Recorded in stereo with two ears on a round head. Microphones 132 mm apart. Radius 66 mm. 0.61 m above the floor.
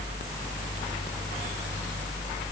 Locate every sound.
Only background noise.